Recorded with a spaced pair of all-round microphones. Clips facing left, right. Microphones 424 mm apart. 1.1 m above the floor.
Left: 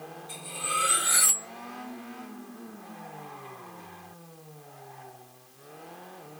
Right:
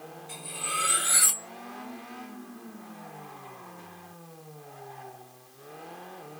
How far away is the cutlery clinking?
About 1.8 m.